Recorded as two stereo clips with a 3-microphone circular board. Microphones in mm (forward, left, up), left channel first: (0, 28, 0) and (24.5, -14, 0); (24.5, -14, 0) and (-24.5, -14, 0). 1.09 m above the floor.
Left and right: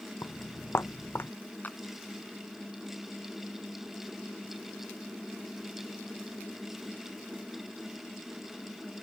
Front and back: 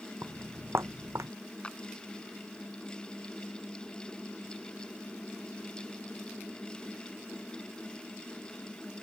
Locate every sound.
0.2 s footsteps: 145° left; by 1.3 s 165° left
1.6 s a clap: 70° left